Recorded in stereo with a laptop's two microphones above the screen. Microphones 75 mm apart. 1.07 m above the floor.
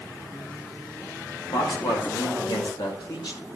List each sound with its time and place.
1.5 s a man speaking: 65° left (ahead or behind), 1.5 m; by 3.4 s 80° left, 1.9 m